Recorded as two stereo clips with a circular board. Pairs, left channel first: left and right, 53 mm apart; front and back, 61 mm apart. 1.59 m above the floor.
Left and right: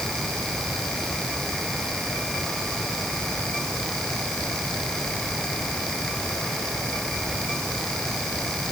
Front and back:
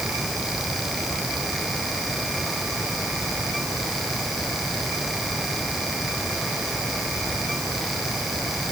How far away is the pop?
I don't hear a pop.